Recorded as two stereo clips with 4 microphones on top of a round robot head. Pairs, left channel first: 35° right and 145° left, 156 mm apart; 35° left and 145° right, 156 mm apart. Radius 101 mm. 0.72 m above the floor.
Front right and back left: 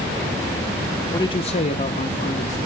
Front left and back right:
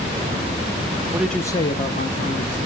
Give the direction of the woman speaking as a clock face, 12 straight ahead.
3 o'clock.